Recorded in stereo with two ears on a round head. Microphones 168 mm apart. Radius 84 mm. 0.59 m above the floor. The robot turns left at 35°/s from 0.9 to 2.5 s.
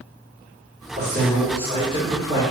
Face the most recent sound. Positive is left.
turn(degrees=-140)